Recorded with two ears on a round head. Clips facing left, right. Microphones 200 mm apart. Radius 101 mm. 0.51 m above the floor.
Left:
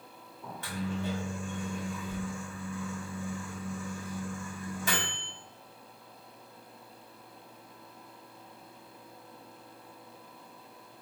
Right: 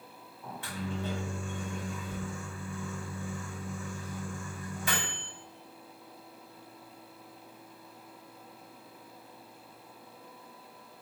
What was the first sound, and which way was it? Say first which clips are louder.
A microwave: left 2 dB; 35° left (ahead or behind).